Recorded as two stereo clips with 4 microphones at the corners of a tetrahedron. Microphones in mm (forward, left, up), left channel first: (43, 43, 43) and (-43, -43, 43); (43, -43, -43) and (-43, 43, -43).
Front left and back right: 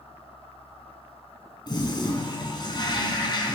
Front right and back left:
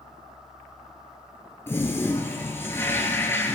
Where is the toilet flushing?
15° left, 1.6 m.